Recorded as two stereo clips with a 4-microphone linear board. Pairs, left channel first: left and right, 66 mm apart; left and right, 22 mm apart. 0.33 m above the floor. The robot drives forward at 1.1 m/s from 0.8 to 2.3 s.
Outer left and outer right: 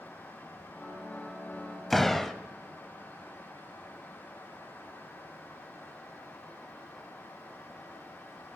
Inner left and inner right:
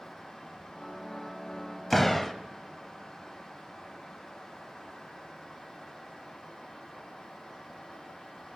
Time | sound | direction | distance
1.9 | a door slam | 5° left (ahead or behind) | 1.1 m